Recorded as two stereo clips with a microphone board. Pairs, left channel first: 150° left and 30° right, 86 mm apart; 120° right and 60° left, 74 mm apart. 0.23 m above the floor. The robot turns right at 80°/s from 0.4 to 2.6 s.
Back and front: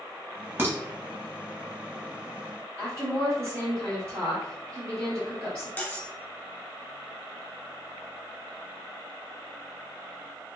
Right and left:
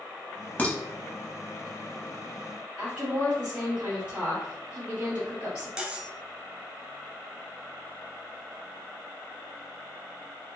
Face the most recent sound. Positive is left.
turn(degrees=115)